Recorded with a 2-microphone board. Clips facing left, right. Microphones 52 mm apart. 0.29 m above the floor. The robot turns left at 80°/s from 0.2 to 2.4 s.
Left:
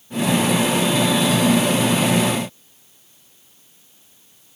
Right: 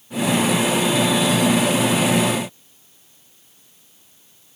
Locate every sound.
Only background noise.